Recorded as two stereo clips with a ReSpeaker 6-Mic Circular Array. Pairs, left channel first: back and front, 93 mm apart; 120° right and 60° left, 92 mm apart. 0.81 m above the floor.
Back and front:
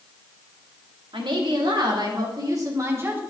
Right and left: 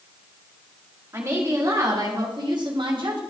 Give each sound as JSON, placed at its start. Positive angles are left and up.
{"t": 1.1, "sound": "a woman speaking", "azimuth_deg": 5, "distance_m": 2.0}